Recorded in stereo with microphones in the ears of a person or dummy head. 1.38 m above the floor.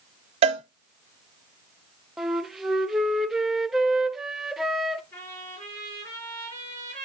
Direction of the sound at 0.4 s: 30° right (ahead or behind).